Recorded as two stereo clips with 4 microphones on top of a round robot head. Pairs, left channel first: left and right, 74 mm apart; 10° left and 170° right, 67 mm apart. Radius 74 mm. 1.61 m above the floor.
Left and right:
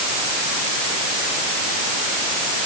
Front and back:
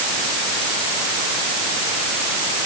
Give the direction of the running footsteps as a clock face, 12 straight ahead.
I don't hear running footsteps.